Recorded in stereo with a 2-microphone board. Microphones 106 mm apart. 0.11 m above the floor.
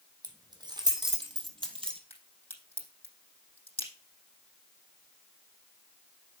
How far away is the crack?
About 4 m.